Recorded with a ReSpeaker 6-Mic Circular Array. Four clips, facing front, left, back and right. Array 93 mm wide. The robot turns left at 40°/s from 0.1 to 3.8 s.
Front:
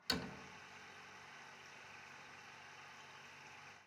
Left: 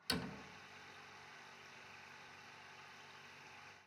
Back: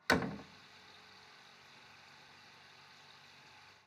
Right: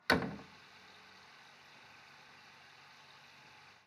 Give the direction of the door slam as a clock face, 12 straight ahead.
5 o'clock.